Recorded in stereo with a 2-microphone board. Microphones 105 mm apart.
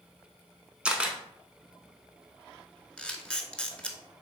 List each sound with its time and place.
0.8 s a camera shutter: 10° right (ahead or behind), 0.6 m
3.0 s a camera shutter: 10° left (ahead or behind), 0.5 m